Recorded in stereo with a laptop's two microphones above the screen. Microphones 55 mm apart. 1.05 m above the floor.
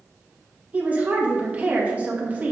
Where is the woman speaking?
30° right (ahead or behind), 1.8 m.